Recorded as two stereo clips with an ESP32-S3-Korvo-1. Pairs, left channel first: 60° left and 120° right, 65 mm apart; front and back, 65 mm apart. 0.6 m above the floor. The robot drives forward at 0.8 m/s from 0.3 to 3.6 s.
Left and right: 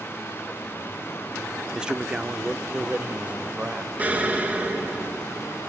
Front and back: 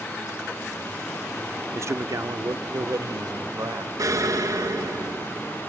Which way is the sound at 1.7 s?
165° left.